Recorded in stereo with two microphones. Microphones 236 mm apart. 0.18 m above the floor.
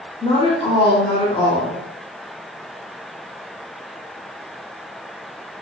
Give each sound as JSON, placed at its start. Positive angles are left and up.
{"t": 0.2, "sound": "a woman speaking", "side_deg": 20, "distance_m": 1.0}